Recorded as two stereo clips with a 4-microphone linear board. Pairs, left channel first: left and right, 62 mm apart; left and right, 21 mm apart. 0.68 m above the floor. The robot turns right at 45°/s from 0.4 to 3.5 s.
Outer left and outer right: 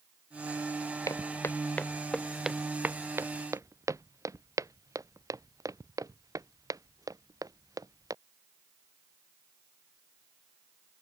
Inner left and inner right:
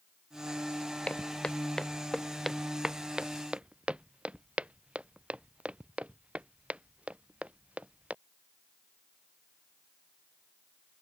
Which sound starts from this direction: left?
Footsteps, at 1.1 s.